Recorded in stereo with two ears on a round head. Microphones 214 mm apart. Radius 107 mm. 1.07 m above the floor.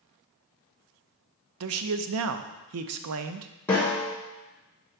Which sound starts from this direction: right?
A man speaking, at 1.6 s.